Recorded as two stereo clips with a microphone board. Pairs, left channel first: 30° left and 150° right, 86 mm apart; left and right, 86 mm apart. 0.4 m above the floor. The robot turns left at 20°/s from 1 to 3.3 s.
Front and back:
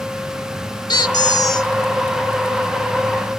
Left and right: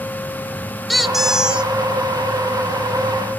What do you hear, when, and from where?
0.9 s a squeak: straight ahead, 0.7 m; by 1.7 s 15° right, 0.7 m